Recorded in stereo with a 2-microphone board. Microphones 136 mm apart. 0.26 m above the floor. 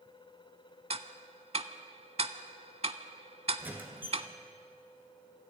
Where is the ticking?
50° right (ahead or behind), 0.6 m.